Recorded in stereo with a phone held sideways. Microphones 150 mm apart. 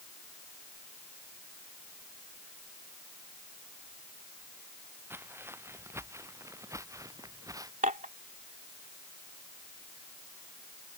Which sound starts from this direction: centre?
Footsteps, at 5.1 s.